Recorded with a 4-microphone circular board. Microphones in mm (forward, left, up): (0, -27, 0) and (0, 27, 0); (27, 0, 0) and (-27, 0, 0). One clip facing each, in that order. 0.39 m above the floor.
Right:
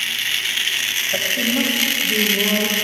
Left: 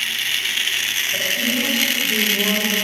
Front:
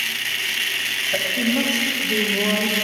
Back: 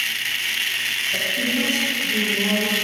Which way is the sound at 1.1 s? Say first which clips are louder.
Right 3 dB, front 3 dB; 45° right.